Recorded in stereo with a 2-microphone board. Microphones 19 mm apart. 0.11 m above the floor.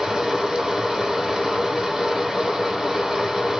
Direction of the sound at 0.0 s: 30° right (ahead or behind).